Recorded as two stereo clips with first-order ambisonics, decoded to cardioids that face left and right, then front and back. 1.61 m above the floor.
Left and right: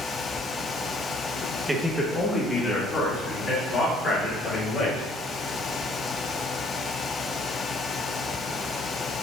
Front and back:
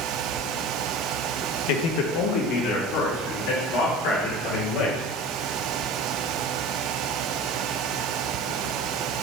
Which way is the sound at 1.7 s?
5° right.